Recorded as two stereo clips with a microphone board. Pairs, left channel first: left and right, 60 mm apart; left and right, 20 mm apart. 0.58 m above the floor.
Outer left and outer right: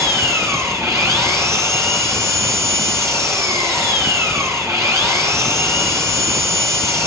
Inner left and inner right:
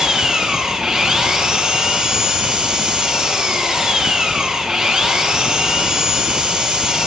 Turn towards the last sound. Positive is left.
turn(degrees=-50)  # may be behind; listen again after turning